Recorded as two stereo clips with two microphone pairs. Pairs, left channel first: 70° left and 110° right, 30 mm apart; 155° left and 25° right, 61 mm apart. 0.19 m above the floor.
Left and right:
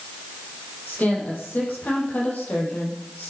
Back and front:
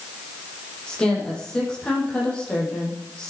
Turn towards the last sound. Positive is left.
turn(degrees=85)